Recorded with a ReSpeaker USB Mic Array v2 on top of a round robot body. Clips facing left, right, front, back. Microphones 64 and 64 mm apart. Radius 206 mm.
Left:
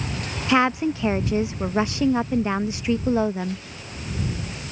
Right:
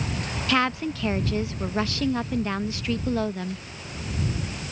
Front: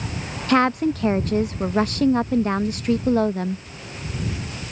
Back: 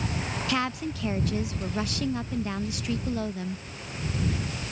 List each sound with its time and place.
0.5 s a woman speaking: 25° left